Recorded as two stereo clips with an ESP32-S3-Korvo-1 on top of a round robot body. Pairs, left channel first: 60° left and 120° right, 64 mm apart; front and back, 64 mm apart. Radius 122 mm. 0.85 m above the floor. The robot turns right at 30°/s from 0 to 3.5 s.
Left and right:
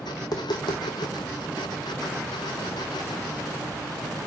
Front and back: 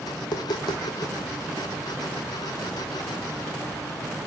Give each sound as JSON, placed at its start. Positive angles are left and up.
{"t": 0.2, "sound": "tapping", "azimuth_deg": 20, "distance_m": 0.7}